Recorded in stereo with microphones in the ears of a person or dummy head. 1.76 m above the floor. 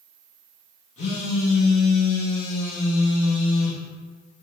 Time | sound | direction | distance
1.0 | a phone buzzing | 45° left (ahead or behind) | 0.9 m